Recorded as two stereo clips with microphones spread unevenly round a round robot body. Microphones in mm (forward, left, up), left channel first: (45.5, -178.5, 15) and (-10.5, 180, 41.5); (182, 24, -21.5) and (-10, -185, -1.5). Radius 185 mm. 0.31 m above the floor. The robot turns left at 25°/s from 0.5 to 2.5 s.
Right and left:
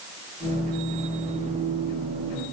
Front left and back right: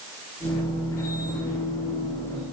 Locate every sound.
Only background noise.